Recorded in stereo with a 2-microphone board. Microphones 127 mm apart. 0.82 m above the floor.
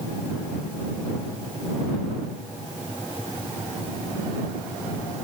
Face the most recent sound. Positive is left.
No sound to turn to.